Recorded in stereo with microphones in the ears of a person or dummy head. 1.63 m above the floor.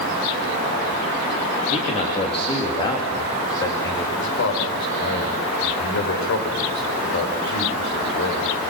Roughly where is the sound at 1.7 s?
Left.